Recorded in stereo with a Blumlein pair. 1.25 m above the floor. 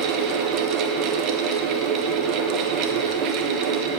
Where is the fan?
35° right, 0.8 m.